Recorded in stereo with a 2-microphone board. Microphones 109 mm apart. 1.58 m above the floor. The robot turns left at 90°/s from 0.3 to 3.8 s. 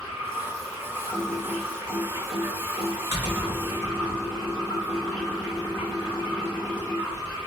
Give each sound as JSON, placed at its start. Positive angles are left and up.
{"t": 0.0, "sound": "running water", "azimuth_deg": 115, "distance_m": 1.9}
{"t": 1.1, "sound": "typing on a keyboard", "side_deg": 45, "distance_m": 1.8}